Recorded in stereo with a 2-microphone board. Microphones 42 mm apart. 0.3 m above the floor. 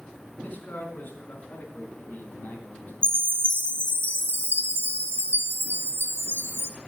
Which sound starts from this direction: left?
A man speaking, at 0.4 s.